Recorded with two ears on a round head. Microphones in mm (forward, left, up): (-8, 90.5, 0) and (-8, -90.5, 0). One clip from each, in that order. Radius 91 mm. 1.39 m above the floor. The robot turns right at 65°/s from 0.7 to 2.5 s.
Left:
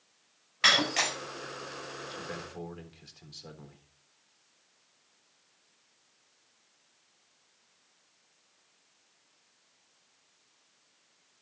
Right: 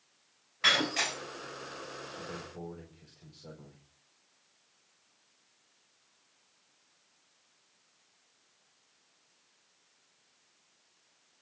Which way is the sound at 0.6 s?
40° left (ahead or behind).